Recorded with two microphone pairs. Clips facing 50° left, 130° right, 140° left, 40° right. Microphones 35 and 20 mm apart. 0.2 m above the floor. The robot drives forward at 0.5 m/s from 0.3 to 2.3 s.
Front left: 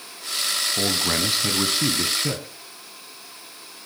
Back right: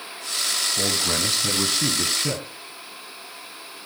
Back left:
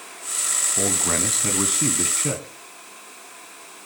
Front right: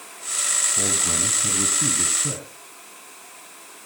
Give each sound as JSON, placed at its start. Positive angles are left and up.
{"t": 0.8, "sound": "a man speaking", "azimuth_deg": 95, "distance_m": 1.3}